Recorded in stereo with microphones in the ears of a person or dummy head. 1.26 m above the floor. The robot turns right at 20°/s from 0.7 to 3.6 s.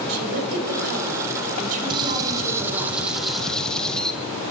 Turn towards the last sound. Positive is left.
turn(degrees=0)